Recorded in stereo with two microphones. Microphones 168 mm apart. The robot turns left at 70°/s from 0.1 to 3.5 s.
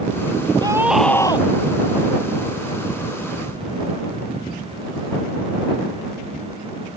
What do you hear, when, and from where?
0.6 s a scream: 155° right; by 1.5 s 145° left